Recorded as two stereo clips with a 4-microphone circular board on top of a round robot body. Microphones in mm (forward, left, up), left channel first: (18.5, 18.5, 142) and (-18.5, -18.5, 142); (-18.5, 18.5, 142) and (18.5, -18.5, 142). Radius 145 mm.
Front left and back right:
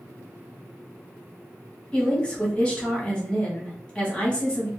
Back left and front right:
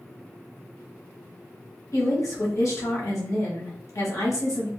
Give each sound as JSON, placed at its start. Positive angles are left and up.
{"t": 1.9, "sound": "a woman speaking", "azimuth_deg": 115, "distance_m": 1.6}